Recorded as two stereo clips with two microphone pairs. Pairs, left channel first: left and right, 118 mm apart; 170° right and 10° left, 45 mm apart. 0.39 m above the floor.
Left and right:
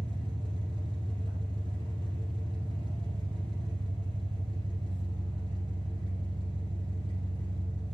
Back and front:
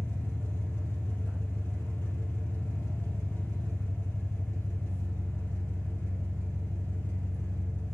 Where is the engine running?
135° right, 3.5 m.